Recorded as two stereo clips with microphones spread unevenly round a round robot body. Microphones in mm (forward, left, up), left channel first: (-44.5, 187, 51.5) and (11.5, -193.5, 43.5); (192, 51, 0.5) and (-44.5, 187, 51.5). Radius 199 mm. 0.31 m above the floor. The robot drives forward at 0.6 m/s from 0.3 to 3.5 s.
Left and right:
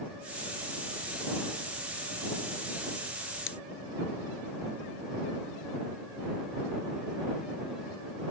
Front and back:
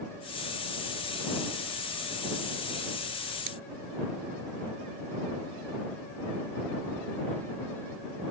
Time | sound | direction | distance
3.5 | scissors | 155° left | ?